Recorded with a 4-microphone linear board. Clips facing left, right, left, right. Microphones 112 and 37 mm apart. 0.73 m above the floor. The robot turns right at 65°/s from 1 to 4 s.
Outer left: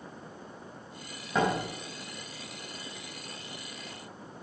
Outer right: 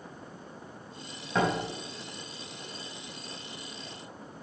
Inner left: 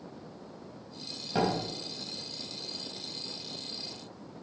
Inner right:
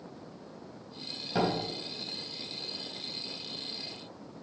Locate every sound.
1.4 s a door slam: 5° left (ahead or behind), 4 m; by 1.6 s 10° right (ahead or behind), 4 m